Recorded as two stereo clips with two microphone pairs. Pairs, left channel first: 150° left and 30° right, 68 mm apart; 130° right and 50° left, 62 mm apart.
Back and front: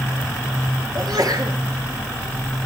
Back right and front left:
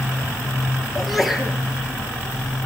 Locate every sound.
0.9 s a sneeze: 40° right, 4 m